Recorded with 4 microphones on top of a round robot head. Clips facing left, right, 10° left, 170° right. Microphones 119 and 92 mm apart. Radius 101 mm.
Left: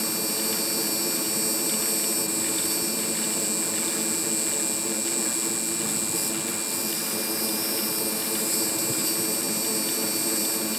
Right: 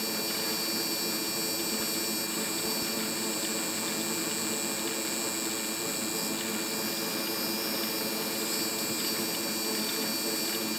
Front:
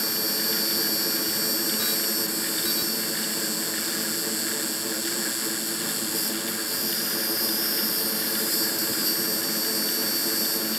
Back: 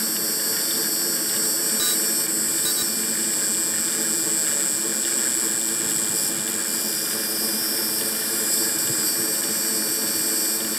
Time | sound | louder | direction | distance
0.0 | an insect | left 4 dB, even | 135° left | ?